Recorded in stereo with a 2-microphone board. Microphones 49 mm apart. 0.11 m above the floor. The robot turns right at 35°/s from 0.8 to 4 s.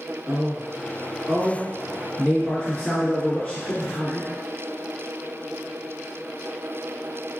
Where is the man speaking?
15° right (ahead or behind), 1.7 m; by 4.3 s 35° left (ahead or behind), 1.7 m.